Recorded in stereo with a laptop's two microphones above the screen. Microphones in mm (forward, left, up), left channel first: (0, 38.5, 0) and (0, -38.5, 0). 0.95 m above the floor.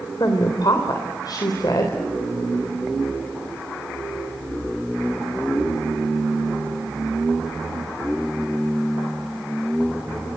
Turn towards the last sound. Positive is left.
turn(degrees=55)  # may be behind; listen again after turning